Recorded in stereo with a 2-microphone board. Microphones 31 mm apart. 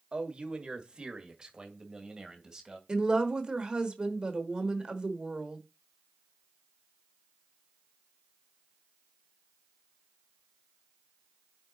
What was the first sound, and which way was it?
A man speaking, 35° right (ahead or behind).